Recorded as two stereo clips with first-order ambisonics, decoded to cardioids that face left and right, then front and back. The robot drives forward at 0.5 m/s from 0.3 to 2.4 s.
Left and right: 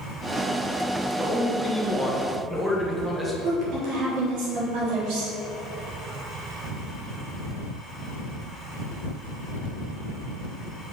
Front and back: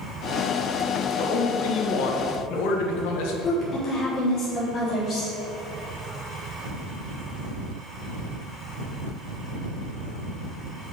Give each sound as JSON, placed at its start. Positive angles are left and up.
{"t": 1.2, "sound": "a man speaking", "azimuth_deg": -5, "distance_m": 2.5}
{"t": 3.4, "sound": "a woman speaking", "azimuth_deg": -60, "distance_m": 3.0}